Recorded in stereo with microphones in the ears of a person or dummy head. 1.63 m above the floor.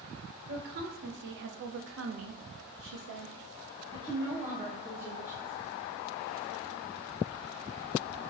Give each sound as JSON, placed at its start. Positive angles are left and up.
{"t": 0.5, "sound": "a woman speaking", "side_deg": -55, "distance_m": 1.5}